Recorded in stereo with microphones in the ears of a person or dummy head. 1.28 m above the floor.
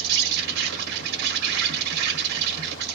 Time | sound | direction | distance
0.0 | an insect | 60° right (ahead or behind) | 0.8 m